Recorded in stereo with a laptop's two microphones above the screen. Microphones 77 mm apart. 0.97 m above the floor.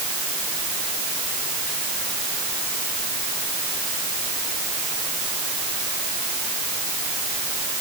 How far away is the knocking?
No knocking in this recording.